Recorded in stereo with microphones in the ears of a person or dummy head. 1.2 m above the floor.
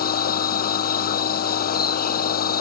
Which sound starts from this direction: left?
A machine running, at 0.0 s.